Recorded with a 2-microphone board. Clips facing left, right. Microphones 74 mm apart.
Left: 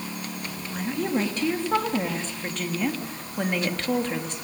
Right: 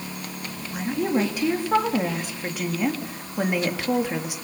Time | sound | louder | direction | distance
0.7 | a woman speaking | right 3 dB | 10° right (ahead or behind) | 3 m